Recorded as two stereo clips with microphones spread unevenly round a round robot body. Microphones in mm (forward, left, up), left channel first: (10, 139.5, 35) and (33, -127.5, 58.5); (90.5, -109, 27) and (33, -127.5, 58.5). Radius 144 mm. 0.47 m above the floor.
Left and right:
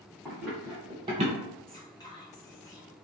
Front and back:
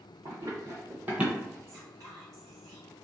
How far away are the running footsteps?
About 1.4 m.